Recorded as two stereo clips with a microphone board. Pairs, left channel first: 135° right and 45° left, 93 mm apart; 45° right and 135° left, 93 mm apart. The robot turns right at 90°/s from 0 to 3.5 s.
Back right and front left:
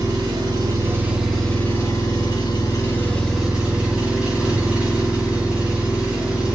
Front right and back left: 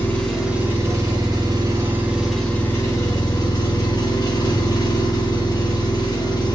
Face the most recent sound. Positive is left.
turn(degrees=-30)